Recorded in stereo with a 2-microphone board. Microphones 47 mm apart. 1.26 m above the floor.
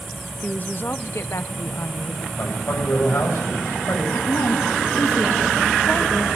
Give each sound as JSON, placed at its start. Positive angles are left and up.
{"t": 0.4, "sound": "a woman speaking", "side_deg": 30, "distance_m": 0.9}
{"t": 2.4, "sound": "a man speaking", "side_deg": 70, "distance_m": 7.0}
{"t": 4.1, "sound": "a woman speaking", "side_deg": 75, "distance_m": 2.5}